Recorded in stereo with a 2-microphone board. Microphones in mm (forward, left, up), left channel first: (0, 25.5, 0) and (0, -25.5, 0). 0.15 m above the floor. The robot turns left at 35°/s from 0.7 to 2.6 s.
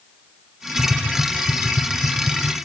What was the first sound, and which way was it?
Tapping, 25° left (ahead or behind).